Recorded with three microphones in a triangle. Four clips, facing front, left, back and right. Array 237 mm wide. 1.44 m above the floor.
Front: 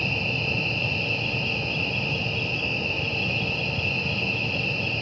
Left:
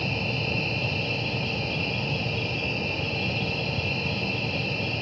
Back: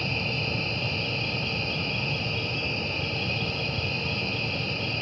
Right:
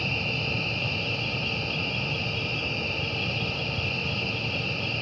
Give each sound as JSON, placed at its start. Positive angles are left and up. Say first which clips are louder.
{"t": 0.0, "sound": "an insect", "louder": "left 2 dB, front 1 dB", "azimuth_deg": 130, "distance_m": 1.9}